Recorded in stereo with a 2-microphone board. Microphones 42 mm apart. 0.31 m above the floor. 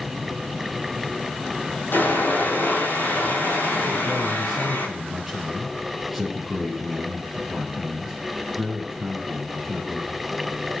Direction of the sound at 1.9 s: 65° left (ahead or behind).